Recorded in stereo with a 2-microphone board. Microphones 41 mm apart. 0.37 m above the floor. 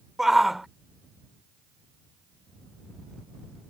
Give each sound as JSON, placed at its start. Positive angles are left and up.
{"t": 0.2, "sound": "a shout", "side_deg": -5}